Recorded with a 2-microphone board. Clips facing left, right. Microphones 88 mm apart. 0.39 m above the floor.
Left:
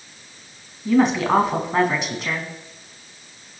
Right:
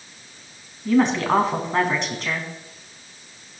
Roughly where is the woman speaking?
Centre.